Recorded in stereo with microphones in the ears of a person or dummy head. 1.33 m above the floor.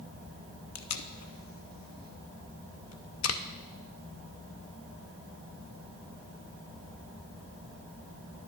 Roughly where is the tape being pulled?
Left.